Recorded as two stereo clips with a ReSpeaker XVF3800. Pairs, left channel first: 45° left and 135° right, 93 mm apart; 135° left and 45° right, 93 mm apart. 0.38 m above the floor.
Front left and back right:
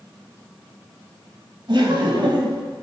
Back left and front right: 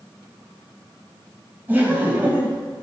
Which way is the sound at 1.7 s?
115° right.